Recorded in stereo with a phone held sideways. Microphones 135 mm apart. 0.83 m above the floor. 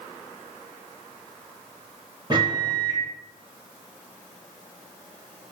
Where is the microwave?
35° right (ahead or behind), 0.8 m.